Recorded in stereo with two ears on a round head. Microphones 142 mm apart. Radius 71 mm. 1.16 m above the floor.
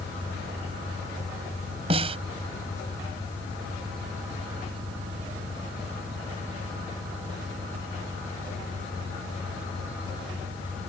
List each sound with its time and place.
0.0 s an engine running: 45° right (ahead or behind)
1.9 s a snare drum: 40° right (ahead or behind)